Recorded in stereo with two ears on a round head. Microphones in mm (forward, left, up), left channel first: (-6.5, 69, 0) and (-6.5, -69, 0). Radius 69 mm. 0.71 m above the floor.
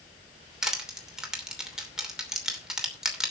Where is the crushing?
5° right (ahead or behind), 2.5 m.